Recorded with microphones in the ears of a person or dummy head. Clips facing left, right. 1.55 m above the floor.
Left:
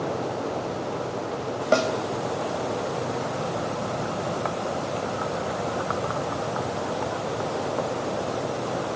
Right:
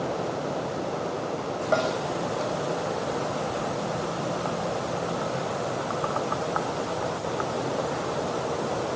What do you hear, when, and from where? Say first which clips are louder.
1.7 s a snare drum: left 3 dB; 45° left (ahead or behind), 4.5 m